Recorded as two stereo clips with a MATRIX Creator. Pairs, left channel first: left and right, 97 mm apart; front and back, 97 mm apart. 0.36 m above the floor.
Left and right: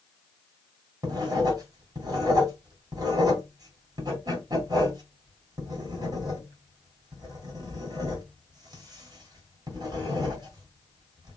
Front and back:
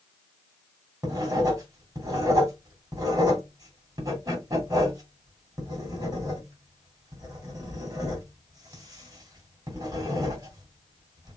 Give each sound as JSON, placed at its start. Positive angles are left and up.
{"t": 1.0, "sound": "writing", "azimuth_deg": -130, "distance_m": 2.5}